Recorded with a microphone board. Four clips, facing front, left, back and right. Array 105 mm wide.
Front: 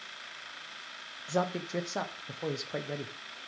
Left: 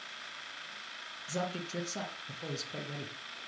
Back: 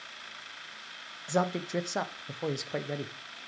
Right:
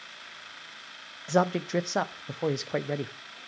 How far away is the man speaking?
About 0.8 m.